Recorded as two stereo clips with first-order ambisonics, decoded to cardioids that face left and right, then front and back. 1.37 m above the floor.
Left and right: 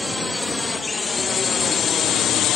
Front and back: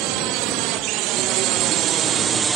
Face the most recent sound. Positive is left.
turn(degrees=115)